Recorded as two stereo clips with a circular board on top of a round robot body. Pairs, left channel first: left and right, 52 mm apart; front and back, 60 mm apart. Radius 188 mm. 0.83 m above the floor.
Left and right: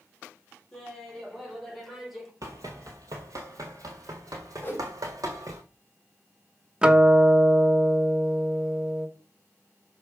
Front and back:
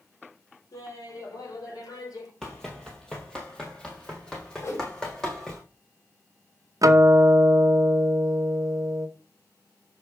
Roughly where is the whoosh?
Ahead left.